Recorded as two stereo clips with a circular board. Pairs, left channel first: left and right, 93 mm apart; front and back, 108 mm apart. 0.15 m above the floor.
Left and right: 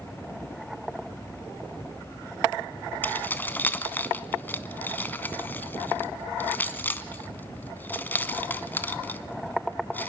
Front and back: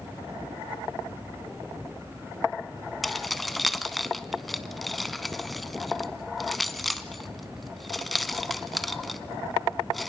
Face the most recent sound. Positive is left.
turn(degrees=90)